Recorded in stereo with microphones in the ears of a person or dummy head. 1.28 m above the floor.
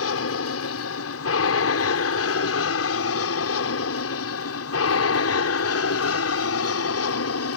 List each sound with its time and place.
0.0 s an aircraft: 70° left (ahead or behind)